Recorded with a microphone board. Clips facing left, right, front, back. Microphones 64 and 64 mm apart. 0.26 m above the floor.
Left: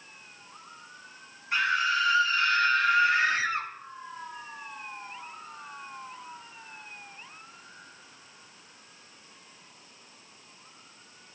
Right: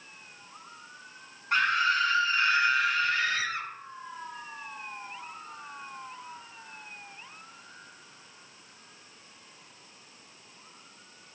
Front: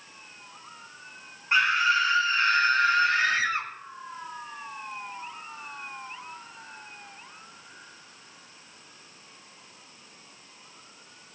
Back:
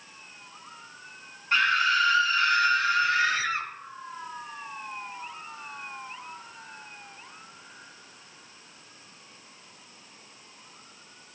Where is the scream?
70° right, 2.5 m; by 3.7 s 45° left, 1.8 m.